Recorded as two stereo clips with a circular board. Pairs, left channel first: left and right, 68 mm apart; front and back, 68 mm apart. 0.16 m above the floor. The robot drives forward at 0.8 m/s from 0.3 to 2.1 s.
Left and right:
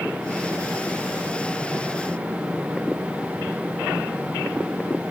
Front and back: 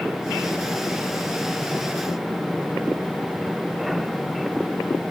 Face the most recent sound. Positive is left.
No sound to turn to.